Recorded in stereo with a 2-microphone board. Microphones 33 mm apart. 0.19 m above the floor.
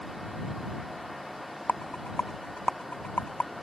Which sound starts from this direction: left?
A rattle, at 1.7 s.